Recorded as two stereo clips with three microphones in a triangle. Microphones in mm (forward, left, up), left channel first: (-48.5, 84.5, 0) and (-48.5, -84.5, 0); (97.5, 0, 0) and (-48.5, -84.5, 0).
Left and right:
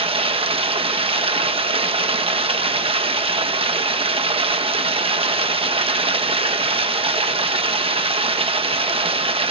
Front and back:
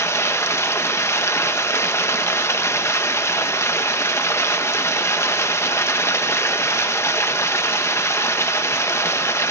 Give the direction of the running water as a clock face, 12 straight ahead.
1 o'clock.